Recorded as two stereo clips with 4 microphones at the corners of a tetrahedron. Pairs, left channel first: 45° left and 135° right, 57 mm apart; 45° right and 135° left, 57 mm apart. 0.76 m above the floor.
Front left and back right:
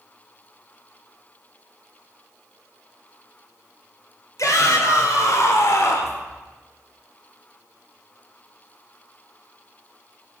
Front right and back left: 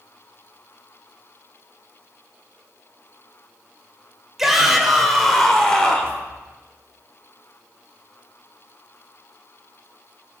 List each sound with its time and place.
4.4 s a shout: 50° left, 2.5 m; by 6.2 s 25° left, 2 m